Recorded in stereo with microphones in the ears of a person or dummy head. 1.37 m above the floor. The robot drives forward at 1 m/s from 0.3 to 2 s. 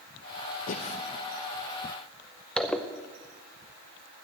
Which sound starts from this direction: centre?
A zipper, at 2.6 s.